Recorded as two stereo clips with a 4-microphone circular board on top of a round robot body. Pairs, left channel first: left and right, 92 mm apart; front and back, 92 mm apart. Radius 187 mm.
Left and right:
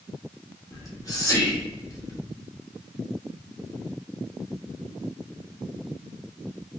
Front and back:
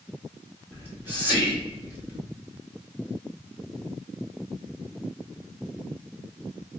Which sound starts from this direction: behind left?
Whispering, at 0.7 s.